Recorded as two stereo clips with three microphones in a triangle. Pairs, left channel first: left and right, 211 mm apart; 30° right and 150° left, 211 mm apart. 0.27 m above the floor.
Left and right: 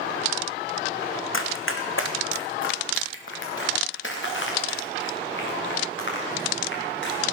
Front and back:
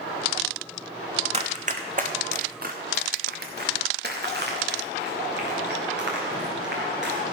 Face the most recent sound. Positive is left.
turn(degrees=115)